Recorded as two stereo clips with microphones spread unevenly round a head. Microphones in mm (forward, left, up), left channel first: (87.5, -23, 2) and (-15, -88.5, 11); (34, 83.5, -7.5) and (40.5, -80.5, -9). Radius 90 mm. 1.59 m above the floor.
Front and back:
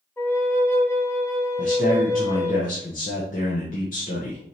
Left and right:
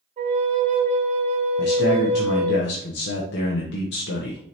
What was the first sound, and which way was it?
A flute, 40° right.